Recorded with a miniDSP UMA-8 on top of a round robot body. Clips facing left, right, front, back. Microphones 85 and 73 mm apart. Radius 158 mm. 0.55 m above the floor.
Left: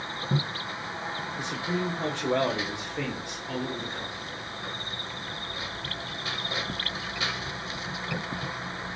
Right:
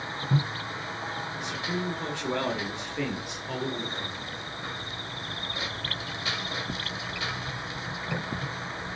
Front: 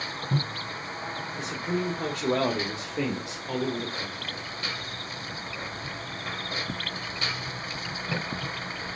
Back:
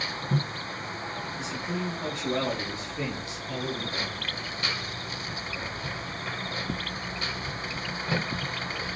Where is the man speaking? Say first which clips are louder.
Left 3 dB, front 4 dB; 30° left, 2.5 m; by 4.4 s 20° right, 2.5 m.